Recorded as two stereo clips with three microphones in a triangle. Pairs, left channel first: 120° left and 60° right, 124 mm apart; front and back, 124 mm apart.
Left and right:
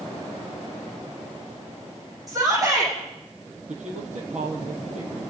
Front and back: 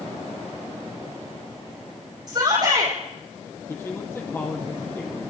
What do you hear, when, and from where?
2.3 s a shout: 120° right, 8 m
3.7 s a man speaking: 70° right, 6 m